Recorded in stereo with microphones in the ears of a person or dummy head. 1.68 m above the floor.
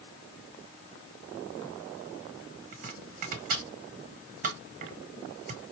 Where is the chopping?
45° right (ahead or behind), 1.0 m.